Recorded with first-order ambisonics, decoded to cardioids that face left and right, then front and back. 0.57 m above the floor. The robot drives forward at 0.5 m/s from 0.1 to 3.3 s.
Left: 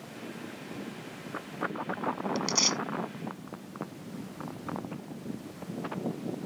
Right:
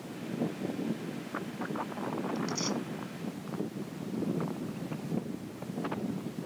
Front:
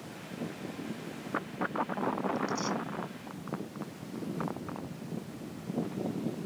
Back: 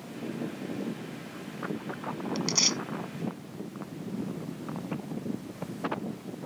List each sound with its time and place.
2.4 s tearing paper: 140° left